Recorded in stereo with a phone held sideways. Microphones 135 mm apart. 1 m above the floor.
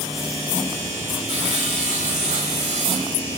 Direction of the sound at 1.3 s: 65° right (ahead or behind).